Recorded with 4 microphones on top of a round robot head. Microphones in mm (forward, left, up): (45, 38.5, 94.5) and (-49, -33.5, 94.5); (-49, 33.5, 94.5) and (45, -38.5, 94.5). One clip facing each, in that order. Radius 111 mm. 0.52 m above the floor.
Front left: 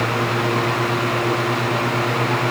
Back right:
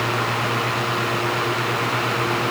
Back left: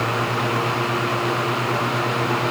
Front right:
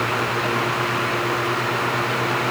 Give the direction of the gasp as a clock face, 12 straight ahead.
I don't hear a gasp.